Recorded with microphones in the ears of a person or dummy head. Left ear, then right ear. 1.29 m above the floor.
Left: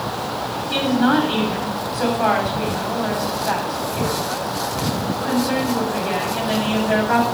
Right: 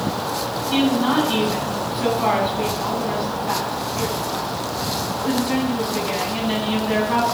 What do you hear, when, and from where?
0.7 s a woman speaking: 70° left (ahead or behind), 7.5 m